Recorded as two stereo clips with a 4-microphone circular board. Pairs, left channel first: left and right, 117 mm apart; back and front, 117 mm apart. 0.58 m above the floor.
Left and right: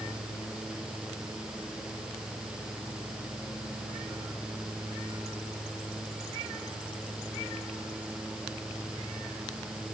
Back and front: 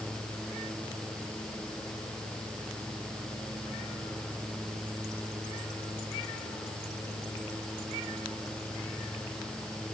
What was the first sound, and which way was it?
Only background noise.